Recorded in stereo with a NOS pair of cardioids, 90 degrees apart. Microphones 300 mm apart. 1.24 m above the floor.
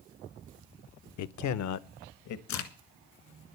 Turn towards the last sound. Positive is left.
turn(degrees=70)